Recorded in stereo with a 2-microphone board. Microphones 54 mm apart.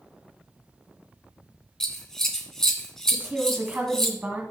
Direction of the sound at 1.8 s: 10° left (ahead or behind).